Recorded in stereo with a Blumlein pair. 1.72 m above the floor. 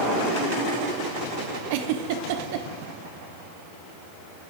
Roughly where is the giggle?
Ahead right.